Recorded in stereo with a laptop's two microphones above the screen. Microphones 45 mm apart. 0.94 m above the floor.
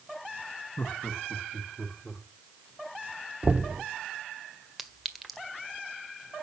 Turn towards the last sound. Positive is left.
turn(degrees=0)  # may be behind; listen again after turning